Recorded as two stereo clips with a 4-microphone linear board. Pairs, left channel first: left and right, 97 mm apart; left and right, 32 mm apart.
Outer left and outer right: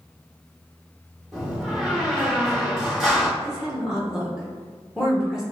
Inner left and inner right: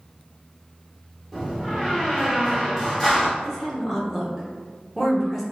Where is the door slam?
5° right (ahead or behind), 1.3 m.